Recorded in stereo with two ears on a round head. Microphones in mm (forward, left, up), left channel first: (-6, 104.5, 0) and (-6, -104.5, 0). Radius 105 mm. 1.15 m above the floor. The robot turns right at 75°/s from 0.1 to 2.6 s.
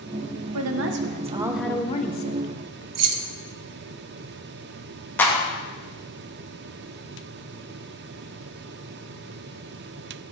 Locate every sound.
0.5 s a woman speaking: 80° right, 0.9 m; by 2.9 s 75° left, 0.9 m
3.0 s keys jangling: 70° right (ahead or behind), 0.7 m
5.2 s a clap: 10° left (ahead or behind), 1.5 m